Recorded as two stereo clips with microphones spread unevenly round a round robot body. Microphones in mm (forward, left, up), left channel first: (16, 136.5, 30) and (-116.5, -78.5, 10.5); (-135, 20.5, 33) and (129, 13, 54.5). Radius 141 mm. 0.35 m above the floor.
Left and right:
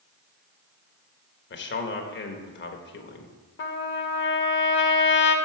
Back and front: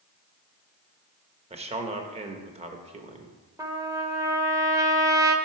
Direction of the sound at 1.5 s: 60° left.